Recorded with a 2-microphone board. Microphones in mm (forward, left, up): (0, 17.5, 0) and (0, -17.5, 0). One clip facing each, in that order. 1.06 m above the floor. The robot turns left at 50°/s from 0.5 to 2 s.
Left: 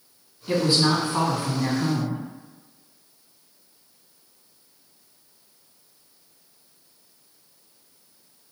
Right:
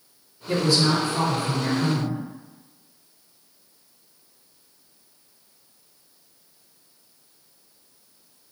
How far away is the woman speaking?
About 1.8 m.